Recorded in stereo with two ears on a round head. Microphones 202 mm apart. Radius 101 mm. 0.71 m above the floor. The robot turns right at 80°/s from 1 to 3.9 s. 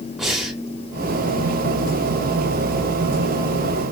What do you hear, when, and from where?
0.2 s breathing: centre (ahead or behind), 1.4 m